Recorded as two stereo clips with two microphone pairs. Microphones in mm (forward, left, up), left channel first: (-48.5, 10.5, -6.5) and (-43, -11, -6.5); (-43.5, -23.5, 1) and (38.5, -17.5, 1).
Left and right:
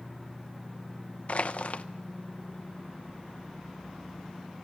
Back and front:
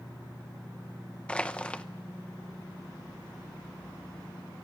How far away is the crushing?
About 0.7 m.